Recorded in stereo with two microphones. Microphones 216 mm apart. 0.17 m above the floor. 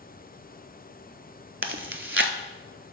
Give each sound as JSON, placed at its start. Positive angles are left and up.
{"t": 1.6, "sound": "chewing", "side_deg": -65, "distance_m": 0.7}